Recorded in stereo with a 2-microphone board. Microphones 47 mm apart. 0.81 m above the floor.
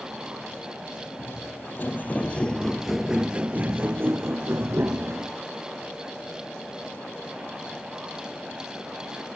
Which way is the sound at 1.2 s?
55° left (ahead or behind).